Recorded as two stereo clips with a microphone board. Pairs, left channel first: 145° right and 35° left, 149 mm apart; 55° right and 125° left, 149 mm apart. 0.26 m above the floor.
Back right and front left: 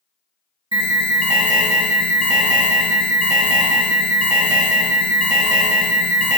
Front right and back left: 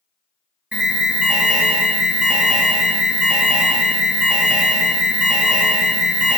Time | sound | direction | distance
0.7 | an alarm | 45° left | 0.9 m